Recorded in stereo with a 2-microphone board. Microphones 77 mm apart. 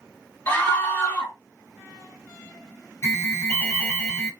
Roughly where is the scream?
Left.